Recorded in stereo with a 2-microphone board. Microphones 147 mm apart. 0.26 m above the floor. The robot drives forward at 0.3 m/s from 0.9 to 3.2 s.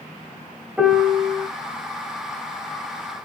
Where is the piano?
5° right (ahead or behind), 0.9 m.